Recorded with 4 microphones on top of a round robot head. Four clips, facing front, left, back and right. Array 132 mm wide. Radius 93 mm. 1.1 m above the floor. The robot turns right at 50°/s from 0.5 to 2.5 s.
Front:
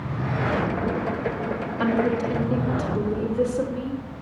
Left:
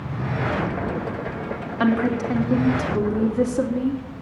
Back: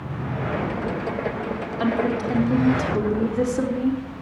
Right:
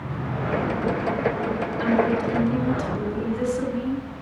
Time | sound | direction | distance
1.8 | a woman speaking | 100° left | 3 m